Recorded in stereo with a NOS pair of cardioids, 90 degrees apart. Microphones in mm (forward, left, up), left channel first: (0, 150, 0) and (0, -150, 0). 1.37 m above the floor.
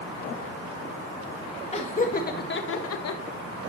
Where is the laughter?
20° left, 2.5 m; by 3.2 s 65° left, 1.4 m.